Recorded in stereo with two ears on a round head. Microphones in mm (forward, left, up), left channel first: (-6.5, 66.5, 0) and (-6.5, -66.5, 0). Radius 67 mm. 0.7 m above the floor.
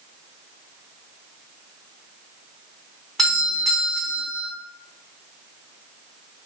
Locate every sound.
3.2 s a doorbell: centre (ahead or behind), 2.5 m